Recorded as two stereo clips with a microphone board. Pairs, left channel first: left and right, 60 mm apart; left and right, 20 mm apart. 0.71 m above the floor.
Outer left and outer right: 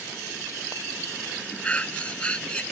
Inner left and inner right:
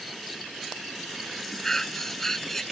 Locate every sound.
1.6 s breathing: 20° left (ahead or behind)